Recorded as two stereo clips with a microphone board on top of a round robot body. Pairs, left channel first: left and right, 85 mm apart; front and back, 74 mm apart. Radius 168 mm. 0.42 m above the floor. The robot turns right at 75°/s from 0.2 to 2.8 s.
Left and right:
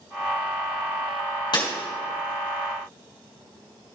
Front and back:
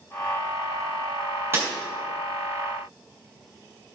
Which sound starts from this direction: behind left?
Breaking glass, at 1.5 s.